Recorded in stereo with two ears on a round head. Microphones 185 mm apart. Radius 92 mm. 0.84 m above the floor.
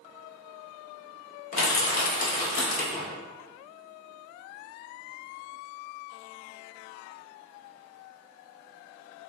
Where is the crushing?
40° left (ahead or behind), 0.7 m.